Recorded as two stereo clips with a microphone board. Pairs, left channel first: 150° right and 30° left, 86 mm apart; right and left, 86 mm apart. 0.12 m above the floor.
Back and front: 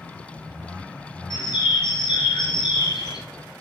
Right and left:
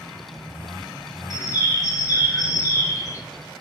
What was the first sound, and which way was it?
A bird, 130° right.